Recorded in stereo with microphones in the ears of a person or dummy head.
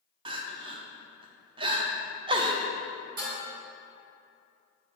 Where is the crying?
20° right (ahead or behind), 0.5 m.